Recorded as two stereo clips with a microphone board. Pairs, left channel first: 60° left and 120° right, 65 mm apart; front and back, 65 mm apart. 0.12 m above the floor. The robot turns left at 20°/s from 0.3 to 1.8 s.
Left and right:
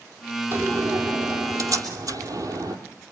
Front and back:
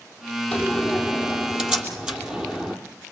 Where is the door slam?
80° right, 3 m; by 2.8 s 105° right, 3 m.